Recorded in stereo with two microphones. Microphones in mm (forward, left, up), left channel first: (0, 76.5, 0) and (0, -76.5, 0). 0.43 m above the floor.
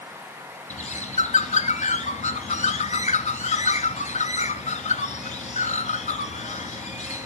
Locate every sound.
0.7 s a bird: 55° left (ahead or behind), 1.3 m